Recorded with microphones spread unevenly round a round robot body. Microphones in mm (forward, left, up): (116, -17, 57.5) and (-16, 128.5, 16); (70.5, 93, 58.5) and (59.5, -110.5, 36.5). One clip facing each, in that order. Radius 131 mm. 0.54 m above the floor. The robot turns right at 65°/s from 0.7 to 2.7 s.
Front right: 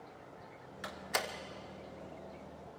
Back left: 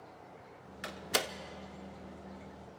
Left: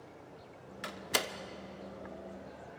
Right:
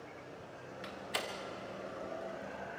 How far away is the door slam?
About 0.9 m.